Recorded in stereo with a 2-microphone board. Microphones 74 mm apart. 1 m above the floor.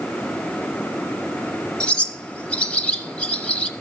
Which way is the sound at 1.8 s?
15° left (ahead or behind).